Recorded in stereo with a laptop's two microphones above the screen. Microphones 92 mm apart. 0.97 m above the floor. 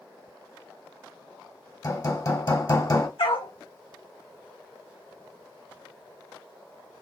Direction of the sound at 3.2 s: 70° left (ahead or behind).